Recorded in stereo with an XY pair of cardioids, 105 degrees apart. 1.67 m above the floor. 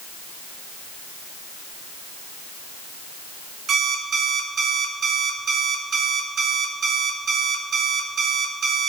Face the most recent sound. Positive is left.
turn(degrees=-60)